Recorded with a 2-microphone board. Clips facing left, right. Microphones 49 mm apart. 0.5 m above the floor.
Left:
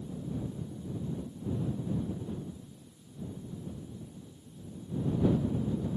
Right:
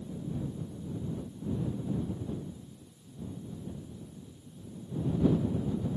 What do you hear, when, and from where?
Only background noise.